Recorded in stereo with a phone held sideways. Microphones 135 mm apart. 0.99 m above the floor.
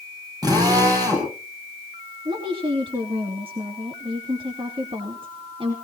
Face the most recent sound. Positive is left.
turn(degrees=-40)  # may be behind; listen again after turning